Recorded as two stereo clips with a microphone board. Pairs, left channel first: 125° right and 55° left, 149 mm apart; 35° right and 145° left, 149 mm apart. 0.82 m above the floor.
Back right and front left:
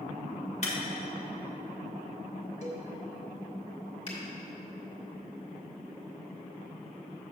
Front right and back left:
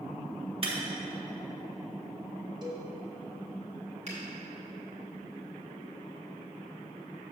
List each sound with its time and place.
0.6 s breaking glass: 165° right, 1.3 m
2.6 s a cowbell: 155° right, 1.5 m
4.1 s a finger snap: 175° right, 2.5 m